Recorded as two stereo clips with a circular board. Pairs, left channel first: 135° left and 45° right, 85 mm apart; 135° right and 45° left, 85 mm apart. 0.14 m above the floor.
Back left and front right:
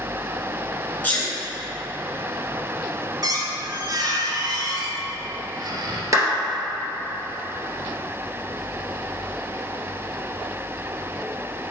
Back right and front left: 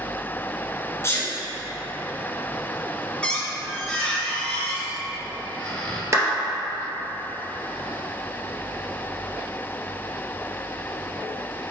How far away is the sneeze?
About 2.0 m.